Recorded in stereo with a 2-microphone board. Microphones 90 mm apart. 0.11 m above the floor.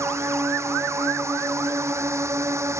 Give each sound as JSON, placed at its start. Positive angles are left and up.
{"t": 0.0, "sound": "a drone", "side_deg": -30}